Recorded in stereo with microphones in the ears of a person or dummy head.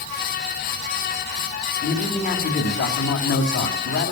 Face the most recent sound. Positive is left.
turn(degrees=60)  # may be behind; listen again after turning